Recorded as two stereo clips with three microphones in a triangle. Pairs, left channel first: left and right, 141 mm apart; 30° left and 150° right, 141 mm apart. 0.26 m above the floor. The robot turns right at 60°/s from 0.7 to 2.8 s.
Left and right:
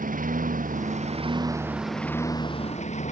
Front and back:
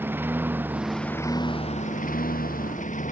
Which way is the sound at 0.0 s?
75° right.